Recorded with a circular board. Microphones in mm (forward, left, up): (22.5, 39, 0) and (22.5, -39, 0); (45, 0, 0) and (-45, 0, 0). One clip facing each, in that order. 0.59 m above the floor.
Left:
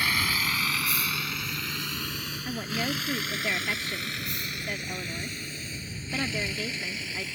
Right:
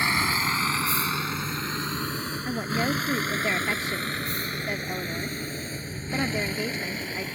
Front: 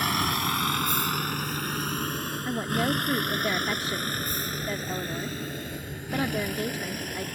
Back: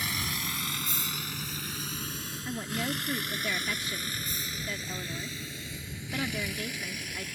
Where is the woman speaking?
30° right.